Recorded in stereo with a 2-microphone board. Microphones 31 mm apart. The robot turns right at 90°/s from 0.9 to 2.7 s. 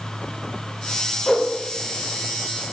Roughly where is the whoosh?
Left.